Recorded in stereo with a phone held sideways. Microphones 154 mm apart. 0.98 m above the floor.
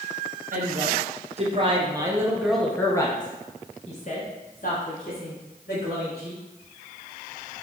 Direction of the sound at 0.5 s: 55° right (ahead or behind).